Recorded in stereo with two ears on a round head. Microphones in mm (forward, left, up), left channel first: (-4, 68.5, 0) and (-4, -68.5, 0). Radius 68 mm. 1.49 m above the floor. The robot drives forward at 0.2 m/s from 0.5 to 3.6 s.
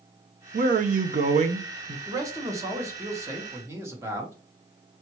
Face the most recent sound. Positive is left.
turn(degrees=-20)  # may be behind; listen again after turning